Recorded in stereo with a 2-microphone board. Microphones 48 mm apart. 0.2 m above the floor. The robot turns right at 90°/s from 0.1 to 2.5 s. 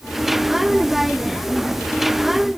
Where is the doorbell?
No doorbell in this recording.